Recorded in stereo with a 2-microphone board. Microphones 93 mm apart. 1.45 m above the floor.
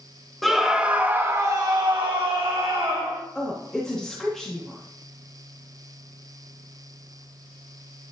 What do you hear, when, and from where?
0.4 s a scream: centre (ahead or behind), 1.7 m; by 3.2 s 80° right, 2.5 m
3.4 s a woman speaking: 5° left (ahead or behind), 2.5 m